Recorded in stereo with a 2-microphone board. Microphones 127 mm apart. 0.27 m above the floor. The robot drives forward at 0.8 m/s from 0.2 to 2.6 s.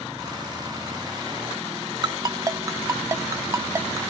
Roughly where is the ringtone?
Right.